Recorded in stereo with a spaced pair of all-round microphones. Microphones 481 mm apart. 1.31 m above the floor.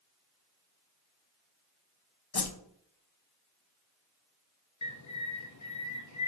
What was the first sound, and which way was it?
A whoosh, 50° left (ahead or behind).